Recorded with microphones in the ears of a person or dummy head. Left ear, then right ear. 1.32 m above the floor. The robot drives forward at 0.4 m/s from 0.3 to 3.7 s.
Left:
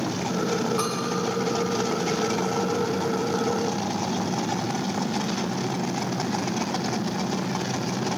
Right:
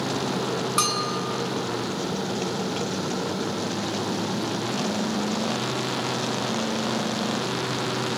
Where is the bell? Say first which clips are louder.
Right 3 dB; 40° right (ahead or behind), 0.8 m; by 1.2 s 45° right (ahead or behind), 0.7 m.